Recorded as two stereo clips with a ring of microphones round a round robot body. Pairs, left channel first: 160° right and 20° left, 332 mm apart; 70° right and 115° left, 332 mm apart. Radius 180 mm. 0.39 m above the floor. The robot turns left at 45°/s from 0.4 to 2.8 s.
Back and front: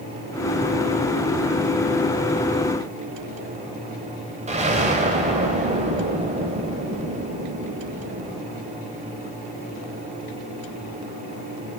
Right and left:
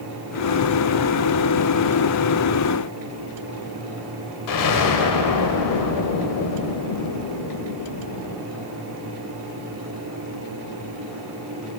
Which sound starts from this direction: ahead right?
An explosion, at 4.5 s.